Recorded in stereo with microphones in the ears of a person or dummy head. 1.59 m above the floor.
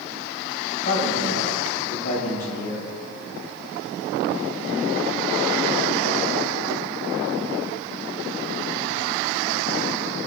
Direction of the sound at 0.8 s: 50° left (ahead or behind).